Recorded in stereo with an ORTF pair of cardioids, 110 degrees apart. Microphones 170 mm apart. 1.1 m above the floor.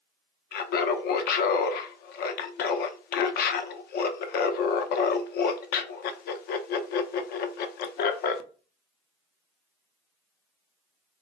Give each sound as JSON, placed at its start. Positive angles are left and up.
{"t": 0.5, "sound": "laughter", "azimuth_deg": 60, "distance_m": 0.6}